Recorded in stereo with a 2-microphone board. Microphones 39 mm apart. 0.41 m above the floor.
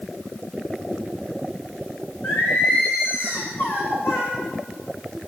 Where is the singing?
85° left, 5.5 m.